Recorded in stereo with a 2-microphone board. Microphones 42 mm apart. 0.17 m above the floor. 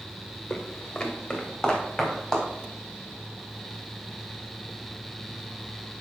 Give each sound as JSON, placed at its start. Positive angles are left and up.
{"t": 0.5, "sound": "footsteps", "side_deg": 15, "distance_m": 1.6}